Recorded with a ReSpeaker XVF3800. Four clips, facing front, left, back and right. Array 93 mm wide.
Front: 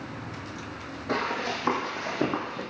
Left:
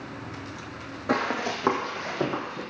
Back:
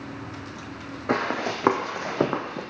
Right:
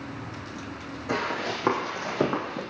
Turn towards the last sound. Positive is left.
turn(degrees=-145)